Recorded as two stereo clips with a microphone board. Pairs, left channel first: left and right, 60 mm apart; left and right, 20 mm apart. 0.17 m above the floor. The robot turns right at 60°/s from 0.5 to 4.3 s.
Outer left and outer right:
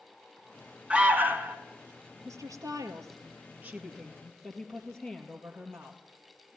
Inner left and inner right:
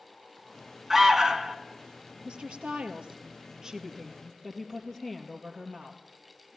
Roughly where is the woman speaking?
Right.